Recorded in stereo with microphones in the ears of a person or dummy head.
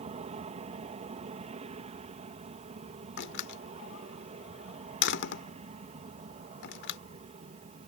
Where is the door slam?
55° left (ahead or behind).